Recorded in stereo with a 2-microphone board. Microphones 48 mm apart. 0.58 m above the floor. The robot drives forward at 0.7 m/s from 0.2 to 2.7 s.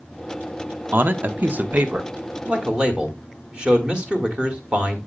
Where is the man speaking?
40° right (ahead or behind), 0.9 m; by 5.0 s 25° right (ahead or behind), 1.6 m.